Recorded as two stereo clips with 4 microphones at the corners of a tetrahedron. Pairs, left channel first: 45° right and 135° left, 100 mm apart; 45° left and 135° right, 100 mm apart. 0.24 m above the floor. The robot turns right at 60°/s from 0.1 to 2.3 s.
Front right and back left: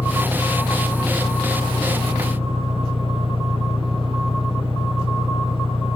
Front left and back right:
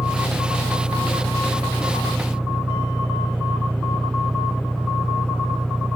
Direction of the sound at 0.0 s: 15° left.